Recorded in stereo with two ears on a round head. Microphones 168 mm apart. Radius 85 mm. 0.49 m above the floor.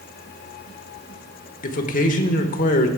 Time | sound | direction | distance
1.6 | a man speaking | 45° left (ahead or behind) | 1.2 m